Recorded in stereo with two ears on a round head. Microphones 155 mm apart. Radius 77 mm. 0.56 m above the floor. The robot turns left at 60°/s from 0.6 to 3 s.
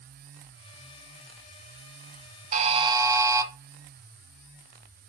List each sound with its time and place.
2.5 s a buzzer: 50° right (ahead or behind), 1.1 m; by 3.5 s 20° right (ahead or behind), 1.1 m